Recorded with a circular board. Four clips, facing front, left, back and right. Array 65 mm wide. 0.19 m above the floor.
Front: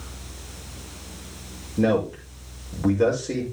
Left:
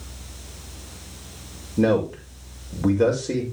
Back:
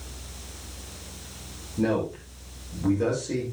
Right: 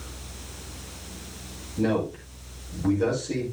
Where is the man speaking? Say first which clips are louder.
Left 5 dB, front 4 dB; 65° left, 6.5 m.